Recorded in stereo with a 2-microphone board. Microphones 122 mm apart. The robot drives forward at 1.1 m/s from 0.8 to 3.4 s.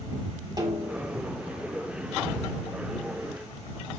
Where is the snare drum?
30° right (ahead or behind), 3 m; by 1.2 s 35° right (ahead or behind), 3 m.